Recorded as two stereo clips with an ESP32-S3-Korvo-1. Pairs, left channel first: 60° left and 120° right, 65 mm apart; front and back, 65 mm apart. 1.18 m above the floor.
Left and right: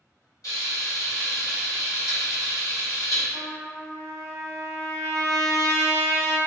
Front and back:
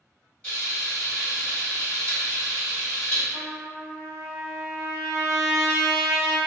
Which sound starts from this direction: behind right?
A trumpet, at 3.3 s.